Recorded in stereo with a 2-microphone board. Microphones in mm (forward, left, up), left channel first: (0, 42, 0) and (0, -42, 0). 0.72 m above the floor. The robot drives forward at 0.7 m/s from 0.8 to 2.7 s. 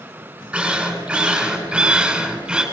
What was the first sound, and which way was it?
A drill, 15° right (ahead or behind).